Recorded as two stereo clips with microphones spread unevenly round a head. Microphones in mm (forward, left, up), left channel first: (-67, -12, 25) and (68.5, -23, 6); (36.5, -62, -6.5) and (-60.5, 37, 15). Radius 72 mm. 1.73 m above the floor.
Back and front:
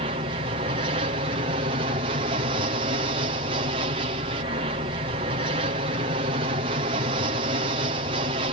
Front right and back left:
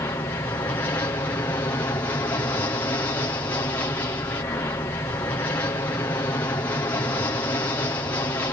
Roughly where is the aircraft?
Ahead.